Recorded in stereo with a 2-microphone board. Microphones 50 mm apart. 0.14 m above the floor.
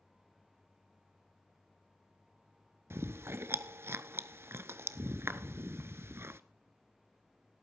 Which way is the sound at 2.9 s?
55° right (ahead or behind).